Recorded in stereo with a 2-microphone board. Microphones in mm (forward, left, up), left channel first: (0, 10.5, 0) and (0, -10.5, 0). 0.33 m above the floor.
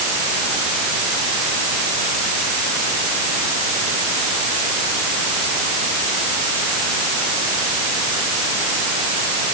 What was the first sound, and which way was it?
Only background noise.